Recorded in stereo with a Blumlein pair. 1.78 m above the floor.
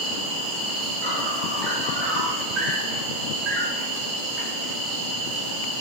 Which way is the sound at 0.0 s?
40° right.